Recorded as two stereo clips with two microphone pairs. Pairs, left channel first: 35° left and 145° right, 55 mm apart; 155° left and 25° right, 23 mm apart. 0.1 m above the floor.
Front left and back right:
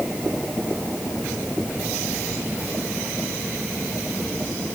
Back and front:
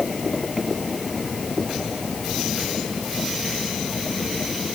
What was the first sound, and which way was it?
Only background noise.